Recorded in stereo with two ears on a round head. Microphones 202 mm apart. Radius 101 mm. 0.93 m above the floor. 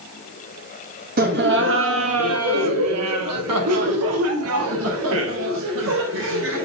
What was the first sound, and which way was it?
Laughter, 40° right (ahead or behind).